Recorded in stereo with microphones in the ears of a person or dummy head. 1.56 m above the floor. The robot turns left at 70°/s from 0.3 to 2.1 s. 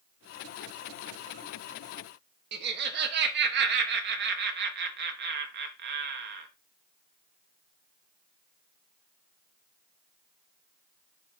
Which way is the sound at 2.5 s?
60° right (ahead or behind).